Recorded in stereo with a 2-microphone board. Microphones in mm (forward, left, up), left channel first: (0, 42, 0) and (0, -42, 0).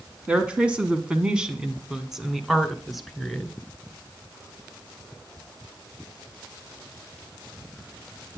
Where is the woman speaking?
15° right (ahead or behind), 1.4 m; by 3.5 s centre (ahead or behind), 2.0 m.